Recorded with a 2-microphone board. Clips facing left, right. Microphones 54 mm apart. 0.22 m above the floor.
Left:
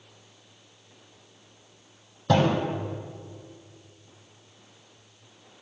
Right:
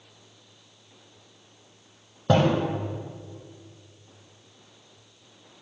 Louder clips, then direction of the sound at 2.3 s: Right 1 dB; 25° right (ahead or behind).